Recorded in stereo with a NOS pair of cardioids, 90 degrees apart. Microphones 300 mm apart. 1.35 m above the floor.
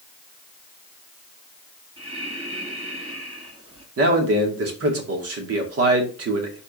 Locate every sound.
2.0 s breathing: 20° right, 6 m
4.0 s a man speaking: 50° right, 2.5 m